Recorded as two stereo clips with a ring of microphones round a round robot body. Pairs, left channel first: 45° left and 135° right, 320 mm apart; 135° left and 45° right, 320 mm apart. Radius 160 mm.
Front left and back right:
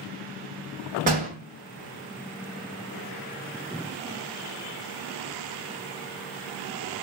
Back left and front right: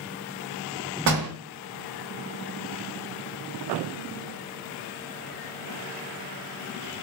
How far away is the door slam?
About 1.3 m.